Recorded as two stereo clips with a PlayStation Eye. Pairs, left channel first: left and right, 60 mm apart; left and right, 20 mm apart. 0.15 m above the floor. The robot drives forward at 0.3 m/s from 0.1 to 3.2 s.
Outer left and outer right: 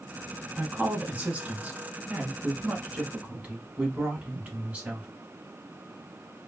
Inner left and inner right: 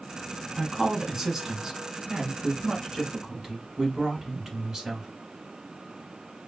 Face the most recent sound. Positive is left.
turn(degrees=-20)  # may be behind; listen again after turning